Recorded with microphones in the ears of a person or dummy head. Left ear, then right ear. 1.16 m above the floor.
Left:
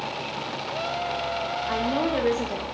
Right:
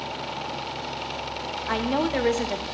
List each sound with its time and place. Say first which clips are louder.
1.7 s a woman speaking: right 2 dB; 25° right (ahead or behind), 0.7 m